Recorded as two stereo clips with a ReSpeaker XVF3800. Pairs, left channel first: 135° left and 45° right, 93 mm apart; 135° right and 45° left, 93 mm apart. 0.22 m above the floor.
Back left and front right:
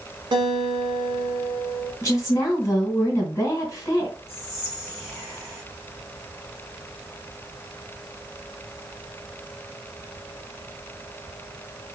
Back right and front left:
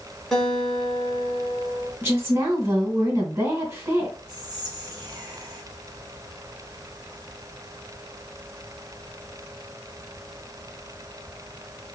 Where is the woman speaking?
95° left, 1.8 m.